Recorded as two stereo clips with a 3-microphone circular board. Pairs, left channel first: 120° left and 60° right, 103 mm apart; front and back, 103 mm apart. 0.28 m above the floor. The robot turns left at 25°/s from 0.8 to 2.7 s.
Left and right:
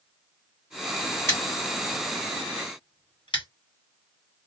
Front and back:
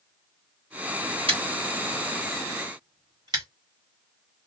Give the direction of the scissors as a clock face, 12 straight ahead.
6 o'clock.